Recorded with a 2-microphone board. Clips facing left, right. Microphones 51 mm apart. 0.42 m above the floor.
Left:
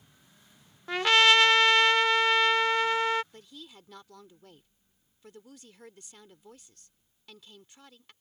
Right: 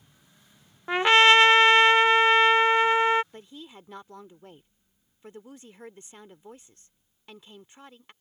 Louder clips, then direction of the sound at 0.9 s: Right 4 dB; 25° right (ahead or behind).